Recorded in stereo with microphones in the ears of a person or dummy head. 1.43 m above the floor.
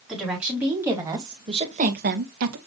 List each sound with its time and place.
0.1 s a woman speaking: 5° right (ahead or behind), 4 m; by 2.6 s 80° right, 1.6 m